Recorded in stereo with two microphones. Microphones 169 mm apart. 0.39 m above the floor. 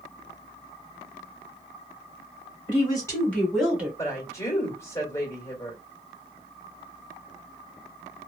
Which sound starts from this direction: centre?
A woman speaking, at 4.0 s.